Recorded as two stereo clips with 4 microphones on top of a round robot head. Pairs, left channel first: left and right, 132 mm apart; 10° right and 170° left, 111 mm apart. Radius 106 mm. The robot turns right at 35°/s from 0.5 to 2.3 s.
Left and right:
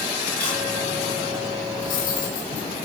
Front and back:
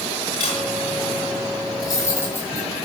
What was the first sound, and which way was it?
A camera shutter, 10° left.